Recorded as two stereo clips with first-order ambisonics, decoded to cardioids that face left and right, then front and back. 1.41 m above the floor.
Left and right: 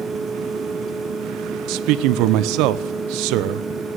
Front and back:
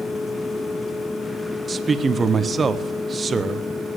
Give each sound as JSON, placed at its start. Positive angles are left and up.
{"t": 1.7, "sound": "a man speaking", "azimuth_deg": -110, "distance_m": 0.8}